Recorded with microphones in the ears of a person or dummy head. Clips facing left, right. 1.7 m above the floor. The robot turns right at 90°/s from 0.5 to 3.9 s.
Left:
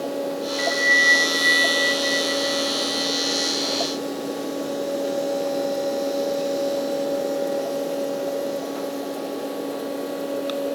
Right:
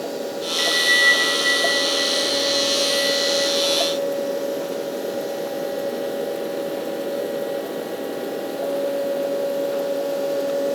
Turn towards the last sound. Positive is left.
turn(degrees=-110)